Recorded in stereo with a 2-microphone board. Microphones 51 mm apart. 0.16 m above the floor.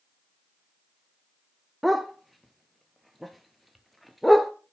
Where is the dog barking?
Centre (ahead or behind), 0.8 m.